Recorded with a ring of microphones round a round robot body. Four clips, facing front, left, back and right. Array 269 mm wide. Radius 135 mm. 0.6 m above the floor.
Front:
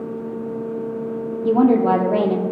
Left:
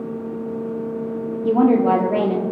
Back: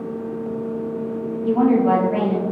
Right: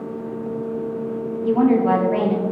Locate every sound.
1.4 s a woman speaking: 40° left, 1.5 m